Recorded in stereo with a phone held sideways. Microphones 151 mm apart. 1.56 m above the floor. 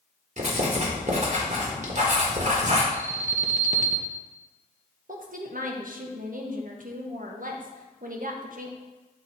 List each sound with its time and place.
0.4 s writing: 50° right (ahead or behind), 1.6 m
2.9 s an alarm: 50° right (ahead or behind), 0.9 m
5.1 s a woman speaking: 60° right (ahead or behind), 1.0 m